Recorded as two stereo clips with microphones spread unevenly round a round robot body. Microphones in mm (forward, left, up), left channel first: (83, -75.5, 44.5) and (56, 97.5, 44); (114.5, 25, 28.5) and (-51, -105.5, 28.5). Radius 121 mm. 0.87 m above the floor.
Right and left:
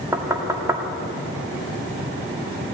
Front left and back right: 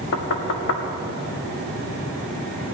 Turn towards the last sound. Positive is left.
turn(degrees=25)